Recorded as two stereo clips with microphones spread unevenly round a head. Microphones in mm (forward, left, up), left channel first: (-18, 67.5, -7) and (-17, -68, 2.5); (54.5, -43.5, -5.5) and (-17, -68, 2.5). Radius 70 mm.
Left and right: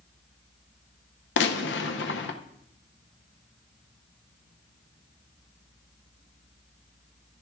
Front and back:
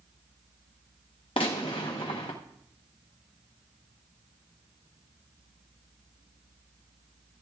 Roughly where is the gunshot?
Left.